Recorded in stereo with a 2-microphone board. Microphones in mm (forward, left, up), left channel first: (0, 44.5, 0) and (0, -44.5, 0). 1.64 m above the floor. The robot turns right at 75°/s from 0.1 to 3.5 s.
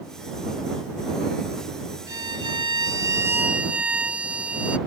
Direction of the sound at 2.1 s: 125° right.